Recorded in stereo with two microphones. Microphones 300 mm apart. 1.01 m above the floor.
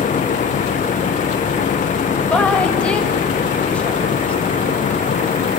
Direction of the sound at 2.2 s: 5° left (ahead or behind).